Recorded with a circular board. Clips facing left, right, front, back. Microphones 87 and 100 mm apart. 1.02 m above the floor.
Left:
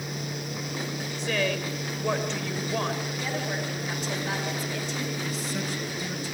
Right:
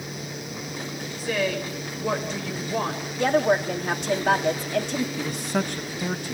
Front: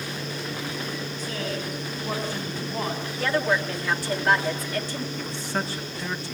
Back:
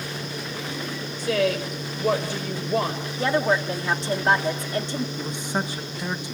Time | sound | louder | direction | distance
1.2 | a woman speaking | right 2 dB, back 11 dB | 175° right | 4.5 m
3.2 | a woman speaking | right 10 dB, back 2 dB | 115° right | 2 m
5.2 | a man speaking | right 5 dB, back 2 dB | 110° right | 1.2 m